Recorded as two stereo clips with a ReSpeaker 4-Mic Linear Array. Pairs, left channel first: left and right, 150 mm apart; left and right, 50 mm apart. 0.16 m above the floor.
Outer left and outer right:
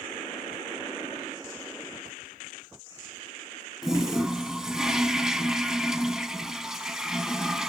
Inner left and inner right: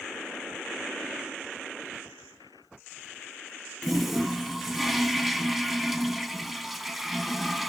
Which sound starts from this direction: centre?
A toilet flushing, at 3.8 s.